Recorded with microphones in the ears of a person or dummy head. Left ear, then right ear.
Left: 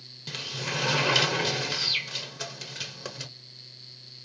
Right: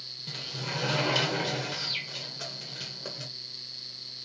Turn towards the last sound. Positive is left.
turn(degrees=20)  # may be behind; listen again after turning